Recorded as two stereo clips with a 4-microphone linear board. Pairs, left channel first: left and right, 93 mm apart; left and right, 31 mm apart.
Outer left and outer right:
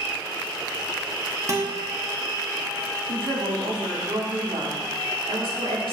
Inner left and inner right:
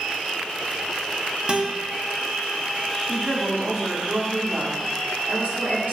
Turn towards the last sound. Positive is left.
turn(degrees=-75)  # may be behind; listen again after turning